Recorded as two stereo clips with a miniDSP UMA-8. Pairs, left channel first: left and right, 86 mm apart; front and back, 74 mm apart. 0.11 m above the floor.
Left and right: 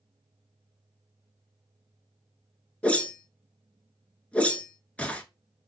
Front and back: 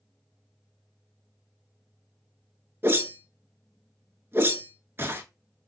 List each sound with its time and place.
2.8 s a whoosh: 155° left, 0.6 m